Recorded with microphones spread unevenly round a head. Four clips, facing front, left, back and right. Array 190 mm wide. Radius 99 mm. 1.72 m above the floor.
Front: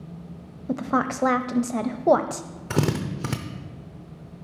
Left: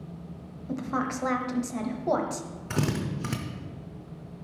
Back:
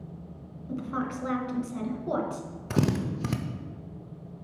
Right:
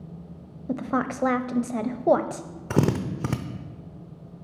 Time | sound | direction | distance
0.7 | a woman speaking | 45° right | 0.6 m
2.7 | a drill | 80° right | 0.6 m